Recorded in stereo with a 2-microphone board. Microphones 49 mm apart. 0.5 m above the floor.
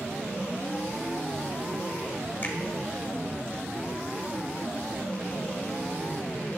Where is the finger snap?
40° left (ahead or behind), 1.3 m.